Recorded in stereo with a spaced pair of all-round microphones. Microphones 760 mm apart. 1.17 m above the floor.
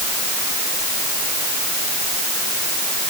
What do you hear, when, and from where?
Only background noise.